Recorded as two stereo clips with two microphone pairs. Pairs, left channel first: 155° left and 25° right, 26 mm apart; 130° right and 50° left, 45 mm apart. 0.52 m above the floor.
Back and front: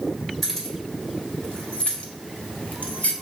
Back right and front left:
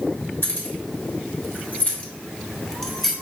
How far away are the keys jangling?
About 1.2 m.